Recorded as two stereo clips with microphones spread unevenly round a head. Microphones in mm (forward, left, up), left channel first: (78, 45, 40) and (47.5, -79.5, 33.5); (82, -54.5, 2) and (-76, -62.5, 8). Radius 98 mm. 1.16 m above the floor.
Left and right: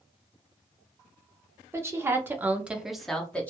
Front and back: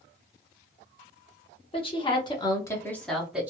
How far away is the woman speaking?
About 1.0 m.